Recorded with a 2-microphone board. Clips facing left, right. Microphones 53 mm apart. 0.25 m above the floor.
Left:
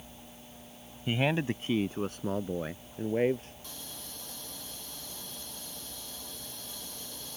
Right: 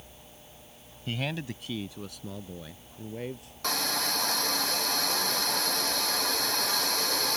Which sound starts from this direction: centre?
A man speaking, at 1.1 s.